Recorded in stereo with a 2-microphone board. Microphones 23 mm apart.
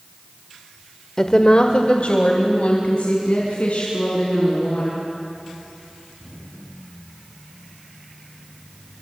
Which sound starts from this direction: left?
A woman speaking, at 1.2 s.